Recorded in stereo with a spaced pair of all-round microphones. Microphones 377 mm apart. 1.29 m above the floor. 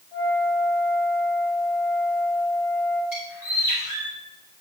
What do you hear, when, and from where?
0.1 s a flute: 80° left, 6.5 m
3.1 s a bird: 55° left (ahead or behind), 4 m